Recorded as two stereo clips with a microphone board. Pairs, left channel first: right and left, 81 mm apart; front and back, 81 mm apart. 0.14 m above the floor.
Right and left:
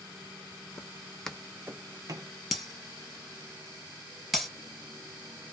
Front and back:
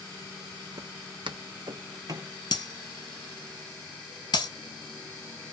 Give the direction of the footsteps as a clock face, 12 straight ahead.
5 o'clock.